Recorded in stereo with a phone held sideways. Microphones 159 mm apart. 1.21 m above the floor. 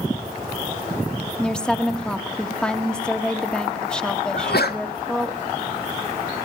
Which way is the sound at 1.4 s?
5° left (ahead or behind).